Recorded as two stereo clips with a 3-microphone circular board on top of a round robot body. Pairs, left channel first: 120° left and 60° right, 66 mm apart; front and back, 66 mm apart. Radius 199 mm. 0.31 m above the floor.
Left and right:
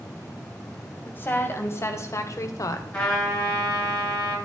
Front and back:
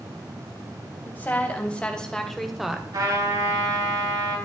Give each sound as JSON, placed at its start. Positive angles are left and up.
{"t": 1.1, "sound": "a woman speaking", "azimuth_deg": 60, "distance_m": 3.0}
{"t": 2.9, "sound": "a trumpet", "azimuth_deg": -170, "distance_m": 10.0}